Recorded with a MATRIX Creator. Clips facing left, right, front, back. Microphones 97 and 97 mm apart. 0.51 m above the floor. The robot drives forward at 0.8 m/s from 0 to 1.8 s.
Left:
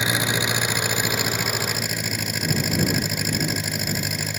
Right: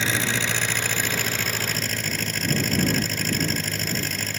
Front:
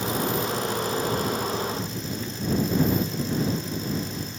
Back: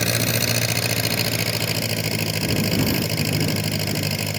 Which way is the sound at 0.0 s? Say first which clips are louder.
Left 2 dB, back 1 dB; 165° left.